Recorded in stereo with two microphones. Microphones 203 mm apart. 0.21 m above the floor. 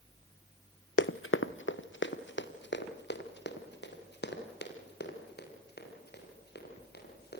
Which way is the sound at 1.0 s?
70° left (ahead or behind).